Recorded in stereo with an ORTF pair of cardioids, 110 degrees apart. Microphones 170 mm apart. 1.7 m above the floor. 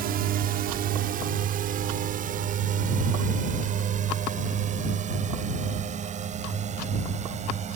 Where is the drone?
65° right; by 7.8 s 45° right.